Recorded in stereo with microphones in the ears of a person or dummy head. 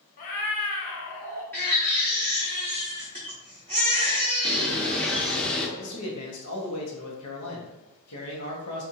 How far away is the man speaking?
About 1.1 m.